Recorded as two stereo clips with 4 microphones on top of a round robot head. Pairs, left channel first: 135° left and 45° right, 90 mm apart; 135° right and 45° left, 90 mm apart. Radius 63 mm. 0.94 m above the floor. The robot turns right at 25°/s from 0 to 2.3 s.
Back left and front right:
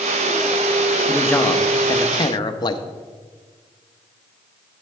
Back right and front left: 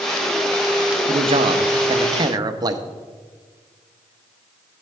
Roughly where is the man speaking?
Ahead left.